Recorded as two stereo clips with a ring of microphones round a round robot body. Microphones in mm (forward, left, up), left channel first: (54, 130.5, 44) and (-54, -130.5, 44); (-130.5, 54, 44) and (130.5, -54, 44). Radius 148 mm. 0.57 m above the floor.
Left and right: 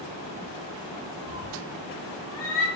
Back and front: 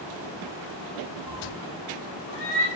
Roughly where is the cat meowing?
Left.